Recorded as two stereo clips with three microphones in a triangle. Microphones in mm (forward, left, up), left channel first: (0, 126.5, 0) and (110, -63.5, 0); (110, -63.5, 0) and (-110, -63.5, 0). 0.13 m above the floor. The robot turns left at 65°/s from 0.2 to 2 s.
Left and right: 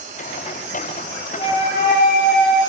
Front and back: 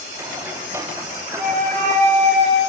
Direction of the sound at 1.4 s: Straight behind.